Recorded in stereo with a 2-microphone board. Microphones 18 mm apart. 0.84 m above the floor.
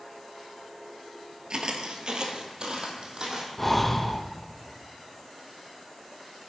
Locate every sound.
1.5 s footsteps: 45° right (ahead or behind), 1.1 m
3.6 s breathing: 10° left (ahead or behind), 0.7 m